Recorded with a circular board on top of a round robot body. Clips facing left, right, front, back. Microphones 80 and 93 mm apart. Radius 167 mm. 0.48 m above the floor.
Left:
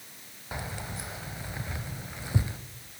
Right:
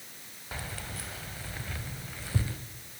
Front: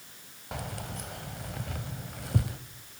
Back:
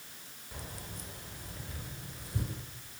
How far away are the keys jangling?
About 2.5 m.